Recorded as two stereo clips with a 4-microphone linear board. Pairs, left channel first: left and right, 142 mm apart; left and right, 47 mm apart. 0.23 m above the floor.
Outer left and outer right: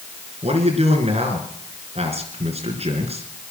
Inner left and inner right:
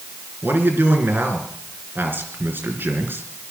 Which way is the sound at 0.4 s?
50° right (ahead or behind).